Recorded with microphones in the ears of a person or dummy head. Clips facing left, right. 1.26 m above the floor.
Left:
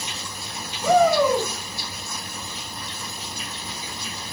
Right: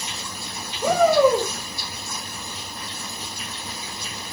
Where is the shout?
45° right (ahead or behind), 5.5 m.